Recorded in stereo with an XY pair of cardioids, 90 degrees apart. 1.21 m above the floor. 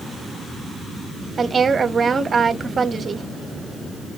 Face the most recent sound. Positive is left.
turn(degrees=-40)